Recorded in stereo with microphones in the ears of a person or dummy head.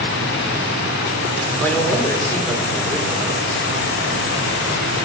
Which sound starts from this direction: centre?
A man speaking, at 1.6 s.